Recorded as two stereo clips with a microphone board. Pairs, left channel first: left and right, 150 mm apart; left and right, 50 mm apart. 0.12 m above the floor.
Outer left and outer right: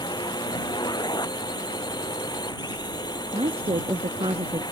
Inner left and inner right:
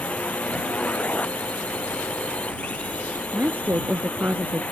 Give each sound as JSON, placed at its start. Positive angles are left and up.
{"t": 0.0, "sound": "a drone", "side_deg": 30}
{"t": 3.3, "sound": "a woman speaking", "side_deg": -40}